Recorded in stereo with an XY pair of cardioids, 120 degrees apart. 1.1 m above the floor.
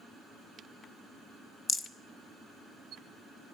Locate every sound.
1.7 s a rattle: 35° left, 0.8 m